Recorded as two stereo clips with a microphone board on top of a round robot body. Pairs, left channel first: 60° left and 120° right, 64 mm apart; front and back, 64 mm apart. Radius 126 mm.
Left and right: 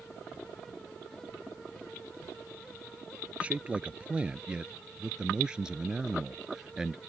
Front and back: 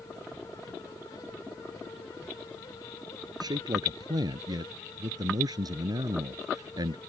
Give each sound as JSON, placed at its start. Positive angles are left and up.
{"t": 3.4, "sound": "a man speaking", "azimuth_deg": 170}